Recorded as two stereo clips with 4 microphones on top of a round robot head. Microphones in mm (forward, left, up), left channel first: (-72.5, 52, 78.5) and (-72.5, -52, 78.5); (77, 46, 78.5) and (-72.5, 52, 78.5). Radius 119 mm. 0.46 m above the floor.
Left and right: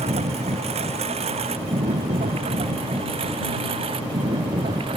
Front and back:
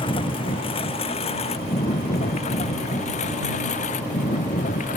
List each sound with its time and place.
0.0 s a lawn mower: 60° right; by 5.0 s 45° right